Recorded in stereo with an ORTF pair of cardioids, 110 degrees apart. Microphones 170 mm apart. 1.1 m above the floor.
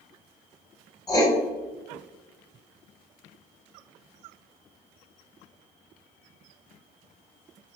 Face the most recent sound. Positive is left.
turn(degrees=25)